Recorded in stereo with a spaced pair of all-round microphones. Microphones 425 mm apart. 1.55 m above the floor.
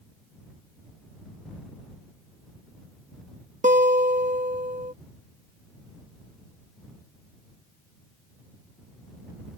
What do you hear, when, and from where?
3.6 s a guitar: 20° right (ahead or behind)